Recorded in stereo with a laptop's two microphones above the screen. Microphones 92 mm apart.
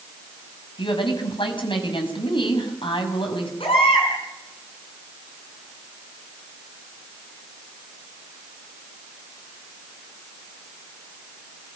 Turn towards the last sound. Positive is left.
turn(degrees=85)